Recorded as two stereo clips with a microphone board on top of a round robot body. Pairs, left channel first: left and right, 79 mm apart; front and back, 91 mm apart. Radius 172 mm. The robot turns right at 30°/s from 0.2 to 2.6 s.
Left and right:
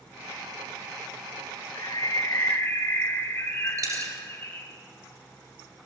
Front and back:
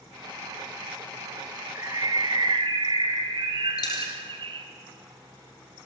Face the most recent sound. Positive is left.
turn(degrees=-45)